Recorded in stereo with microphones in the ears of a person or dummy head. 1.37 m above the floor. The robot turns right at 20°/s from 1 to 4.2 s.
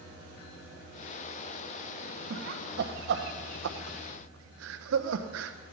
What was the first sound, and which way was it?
Laughter, 50° right (ahead or behind).